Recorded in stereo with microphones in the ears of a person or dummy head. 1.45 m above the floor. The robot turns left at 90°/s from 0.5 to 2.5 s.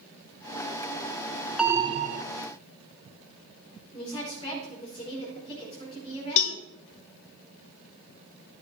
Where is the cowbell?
70° left (ahead or behind), 0.9 m.